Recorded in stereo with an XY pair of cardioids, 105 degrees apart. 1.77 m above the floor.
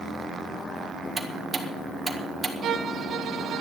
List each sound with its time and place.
1.2 s ticking: 30° right, 1.9 m
2.6 s a violin: 60° right, 1.3 m